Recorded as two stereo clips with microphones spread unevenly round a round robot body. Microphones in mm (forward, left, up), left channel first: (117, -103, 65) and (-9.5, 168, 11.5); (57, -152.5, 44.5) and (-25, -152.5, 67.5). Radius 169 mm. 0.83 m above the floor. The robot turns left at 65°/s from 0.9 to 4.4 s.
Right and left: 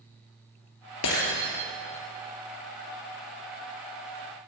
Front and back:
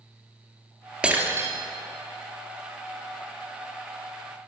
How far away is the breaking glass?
About 2.5 m.